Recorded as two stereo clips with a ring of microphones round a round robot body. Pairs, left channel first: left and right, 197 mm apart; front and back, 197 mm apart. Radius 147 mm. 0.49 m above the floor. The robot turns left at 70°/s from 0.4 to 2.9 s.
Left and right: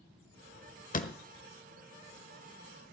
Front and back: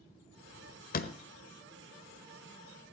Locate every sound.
0.9 s a door slam: 45° left, 1.4 m; by 1.1 s 30° left, 1.4 m